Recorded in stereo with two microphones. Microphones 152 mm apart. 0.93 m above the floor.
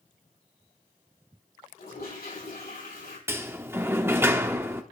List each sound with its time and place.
1.8 s a toilet flushing: 80° left, 6 m
3.3 s a sliding door: 15° right (ahead or behind), 0.7 m